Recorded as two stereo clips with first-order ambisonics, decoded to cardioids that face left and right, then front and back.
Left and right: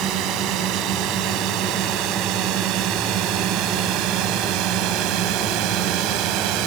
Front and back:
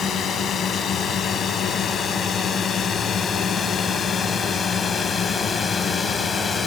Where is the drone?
55° right; by 6.7 s 70° right.